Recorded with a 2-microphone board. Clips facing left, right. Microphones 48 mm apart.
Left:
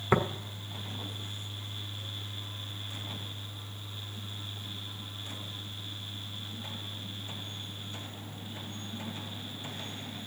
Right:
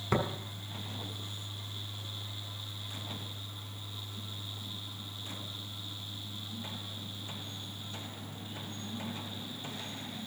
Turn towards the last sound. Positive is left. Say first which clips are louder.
# left 4 dB
turn(degrees=25)  # may be behind; listen again after turning